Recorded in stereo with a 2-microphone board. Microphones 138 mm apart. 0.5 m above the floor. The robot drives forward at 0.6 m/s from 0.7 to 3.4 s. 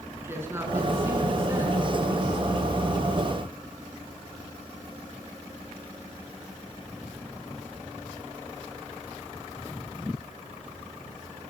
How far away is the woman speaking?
About 6 m.